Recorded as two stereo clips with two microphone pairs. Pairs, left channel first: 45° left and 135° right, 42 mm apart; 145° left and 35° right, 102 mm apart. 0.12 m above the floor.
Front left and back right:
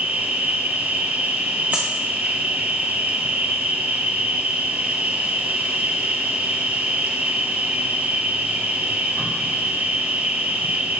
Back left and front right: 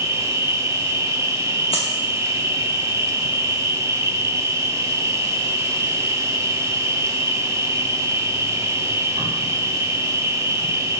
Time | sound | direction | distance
0.0 | an insect | 95° right | 0.8 m
1.7 | a dropped coin | 175° left | 1.3 m